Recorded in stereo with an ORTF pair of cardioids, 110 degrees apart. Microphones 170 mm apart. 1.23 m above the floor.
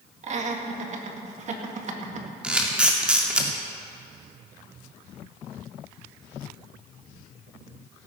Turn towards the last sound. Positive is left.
turn(degrees=-5)